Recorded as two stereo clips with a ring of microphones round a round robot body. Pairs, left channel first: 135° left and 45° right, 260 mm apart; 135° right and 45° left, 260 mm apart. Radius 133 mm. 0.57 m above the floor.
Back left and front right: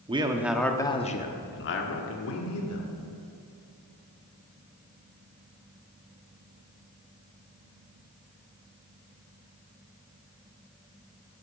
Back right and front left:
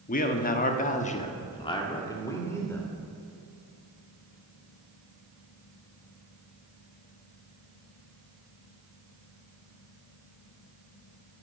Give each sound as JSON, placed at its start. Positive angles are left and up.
{"t": 0.1, "sound": "a man speaking", "azimuth_deg": -100, "distance_m": 1.1}